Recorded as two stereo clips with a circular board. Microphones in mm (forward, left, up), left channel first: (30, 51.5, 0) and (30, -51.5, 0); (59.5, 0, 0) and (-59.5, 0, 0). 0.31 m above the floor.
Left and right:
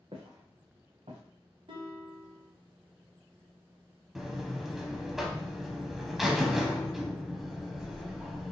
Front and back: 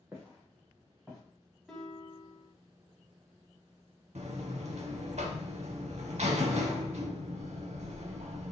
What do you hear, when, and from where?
0.1 s footsteps: 110° right, 1.6 m; by 1.2 s 90° right, 1.8 m
1.7 s a guitar: 85° right, 1.0 m
4.2 s a buzzer: 175° right, 0.6 m